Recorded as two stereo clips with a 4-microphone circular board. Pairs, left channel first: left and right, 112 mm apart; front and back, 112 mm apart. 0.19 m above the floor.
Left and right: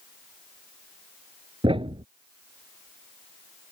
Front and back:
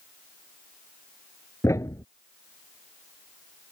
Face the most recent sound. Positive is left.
turn(degrees=-60)